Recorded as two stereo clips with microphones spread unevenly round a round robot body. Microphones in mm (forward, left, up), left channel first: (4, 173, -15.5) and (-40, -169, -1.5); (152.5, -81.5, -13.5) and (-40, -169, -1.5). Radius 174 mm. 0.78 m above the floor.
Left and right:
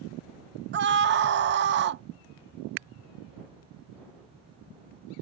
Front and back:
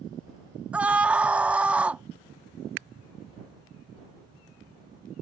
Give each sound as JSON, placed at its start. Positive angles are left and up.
{"t": 0.7, "sound": "a scream", "azimuth_deg": -70}